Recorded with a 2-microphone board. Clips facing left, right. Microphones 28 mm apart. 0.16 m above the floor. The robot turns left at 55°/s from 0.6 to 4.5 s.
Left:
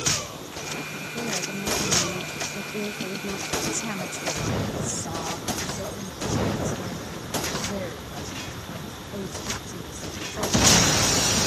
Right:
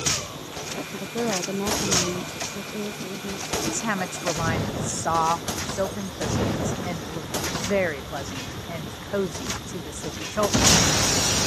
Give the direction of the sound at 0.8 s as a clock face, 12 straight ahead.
2 o'clock.